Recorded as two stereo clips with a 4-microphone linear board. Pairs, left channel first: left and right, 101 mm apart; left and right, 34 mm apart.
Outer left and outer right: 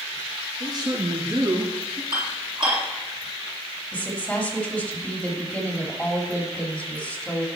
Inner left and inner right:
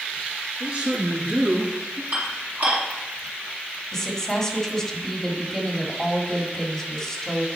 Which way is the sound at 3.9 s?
10° left (ahead or behind).